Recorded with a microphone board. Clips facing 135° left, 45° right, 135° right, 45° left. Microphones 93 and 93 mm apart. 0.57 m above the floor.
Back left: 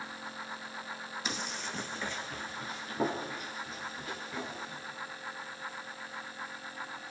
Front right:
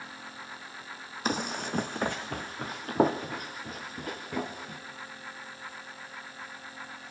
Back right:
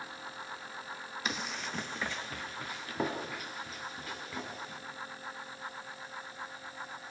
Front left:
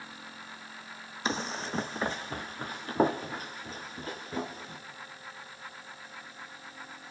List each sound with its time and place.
1.2 s running footsteps: 10° right, 1.1 m